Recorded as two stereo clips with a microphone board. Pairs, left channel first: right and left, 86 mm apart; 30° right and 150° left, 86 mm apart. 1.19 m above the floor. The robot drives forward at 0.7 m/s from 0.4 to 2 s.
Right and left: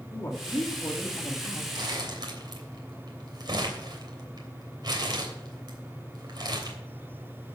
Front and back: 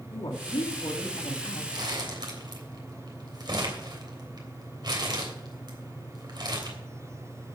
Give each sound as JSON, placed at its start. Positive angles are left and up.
{"t": 0.1, "sound": "a woman speaking", "azimuth_deg": -35, "distance_m": 2.5}
{"t": 1.7, "sound": "crumpling", "azimuth_deg": 120, "distance_m": 3.0}